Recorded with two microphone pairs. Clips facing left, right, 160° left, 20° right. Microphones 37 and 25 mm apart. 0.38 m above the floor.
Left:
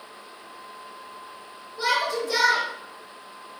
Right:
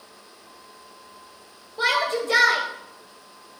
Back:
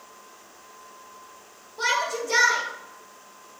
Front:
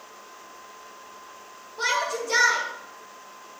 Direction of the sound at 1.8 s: 105° right.